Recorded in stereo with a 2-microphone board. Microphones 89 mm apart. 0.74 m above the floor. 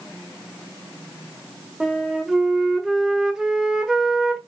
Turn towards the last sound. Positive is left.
turn(degrees=-5)  # may be behind; listen again after turning